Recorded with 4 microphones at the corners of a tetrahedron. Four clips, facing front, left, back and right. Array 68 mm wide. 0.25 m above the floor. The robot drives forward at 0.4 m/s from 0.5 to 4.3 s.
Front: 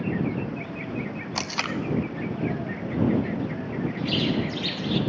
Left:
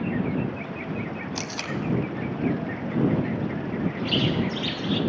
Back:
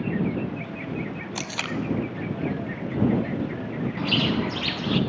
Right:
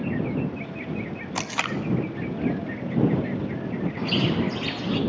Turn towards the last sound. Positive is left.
turn(degrees=-165)